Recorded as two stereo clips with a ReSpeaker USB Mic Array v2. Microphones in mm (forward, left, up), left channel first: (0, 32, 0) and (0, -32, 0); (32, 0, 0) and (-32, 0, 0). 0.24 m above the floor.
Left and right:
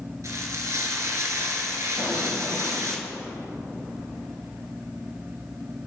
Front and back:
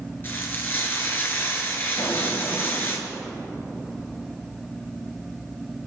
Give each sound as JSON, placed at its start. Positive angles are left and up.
{"t": 0.2, "sound": "frying", "azimuth_deg": -55, "distance_m": 2.0}
{"t": 2.0, "sound": "an explosion", "azimuth_deg": -35, "distance_m": 4.0}